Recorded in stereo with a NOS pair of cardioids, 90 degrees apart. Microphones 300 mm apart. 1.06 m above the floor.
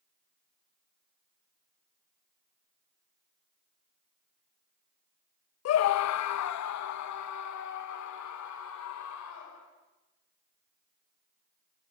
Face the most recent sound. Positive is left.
turn(degrees=70)